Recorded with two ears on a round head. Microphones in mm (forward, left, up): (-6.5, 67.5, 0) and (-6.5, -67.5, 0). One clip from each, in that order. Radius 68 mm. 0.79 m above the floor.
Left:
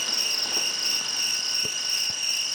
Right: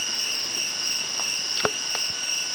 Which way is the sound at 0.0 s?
70° left (ahead or behind).